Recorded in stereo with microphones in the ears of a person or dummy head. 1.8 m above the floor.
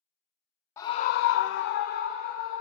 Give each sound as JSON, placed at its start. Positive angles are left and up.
{"t": 0.8, "sound": "a scream", "side_deg": 15, "distance_m": 0.6}